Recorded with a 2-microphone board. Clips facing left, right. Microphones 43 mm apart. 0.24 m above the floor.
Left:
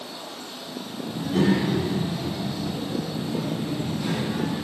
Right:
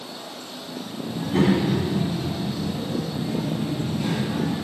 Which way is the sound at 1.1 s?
25° right (ahead or behind).